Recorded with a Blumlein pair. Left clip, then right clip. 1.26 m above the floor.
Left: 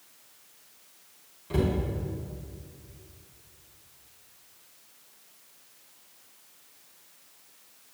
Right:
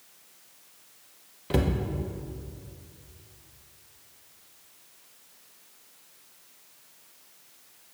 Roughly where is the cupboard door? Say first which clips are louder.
Right 1 dB; ahead right.